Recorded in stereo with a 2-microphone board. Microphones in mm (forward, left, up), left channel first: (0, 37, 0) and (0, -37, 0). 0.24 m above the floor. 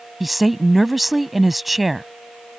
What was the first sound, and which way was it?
A woman speaking, centre (ahead or behind).